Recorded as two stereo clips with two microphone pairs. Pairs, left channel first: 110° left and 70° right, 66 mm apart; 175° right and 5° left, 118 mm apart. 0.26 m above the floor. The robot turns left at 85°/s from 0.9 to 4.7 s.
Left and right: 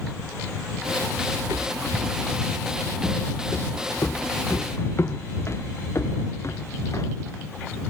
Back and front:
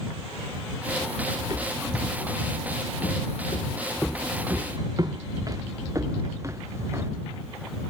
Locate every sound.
1.4 s footsteps: 35° right; by 7.1 s 70° left